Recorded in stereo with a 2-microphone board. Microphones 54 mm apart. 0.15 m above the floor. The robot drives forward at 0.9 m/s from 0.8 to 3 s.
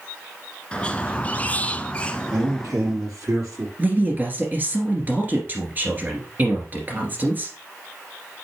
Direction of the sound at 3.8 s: 35° right (ahead or behind).